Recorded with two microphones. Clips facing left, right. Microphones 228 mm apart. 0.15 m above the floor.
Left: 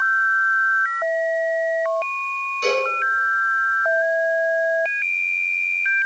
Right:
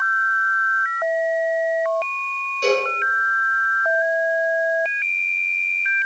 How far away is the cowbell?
About 1.3 m.